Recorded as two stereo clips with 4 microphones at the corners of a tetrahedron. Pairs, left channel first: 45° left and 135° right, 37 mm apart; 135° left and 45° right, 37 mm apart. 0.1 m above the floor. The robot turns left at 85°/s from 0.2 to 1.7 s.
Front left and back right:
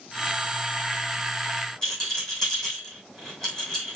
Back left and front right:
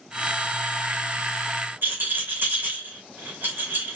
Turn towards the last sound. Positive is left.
turn(degrees=-25)